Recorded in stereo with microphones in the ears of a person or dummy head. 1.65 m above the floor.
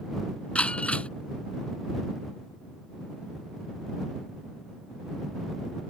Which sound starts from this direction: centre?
Breaking glass, at 0.6 s.